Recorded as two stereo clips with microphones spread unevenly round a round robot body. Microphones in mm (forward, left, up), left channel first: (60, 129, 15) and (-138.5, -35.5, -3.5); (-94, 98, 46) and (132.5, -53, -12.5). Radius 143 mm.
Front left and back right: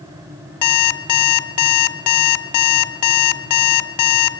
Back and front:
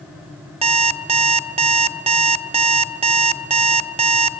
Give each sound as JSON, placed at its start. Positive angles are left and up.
{"t": 0.6, "sound": "an alarm clock", "azimuth_deg": 25, "distance_m": 1.3}